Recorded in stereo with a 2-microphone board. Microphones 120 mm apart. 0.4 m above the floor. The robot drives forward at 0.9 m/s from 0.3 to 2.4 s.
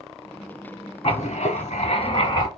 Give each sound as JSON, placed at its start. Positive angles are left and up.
{"t": 1.0, "sound": "writing", "side_deg": 60, "distance_m": 0.8}